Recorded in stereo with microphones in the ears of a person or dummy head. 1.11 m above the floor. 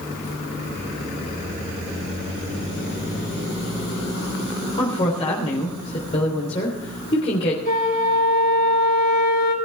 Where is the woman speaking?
35° left (ahead or behind), 3.5 m.